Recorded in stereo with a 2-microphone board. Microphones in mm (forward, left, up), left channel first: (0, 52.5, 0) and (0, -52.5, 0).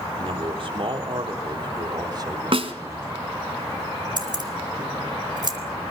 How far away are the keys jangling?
About 2.5 m.